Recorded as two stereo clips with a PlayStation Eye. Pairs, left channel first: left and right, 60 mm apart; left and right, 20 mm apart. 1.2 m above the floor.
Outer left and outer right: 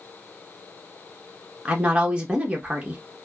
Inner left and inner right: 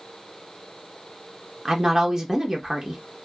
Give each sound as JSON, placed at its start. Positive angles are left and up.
{"t": 1.6, "sound": "a woman speaking", "side_deg": -20, "distance_m": 1.1}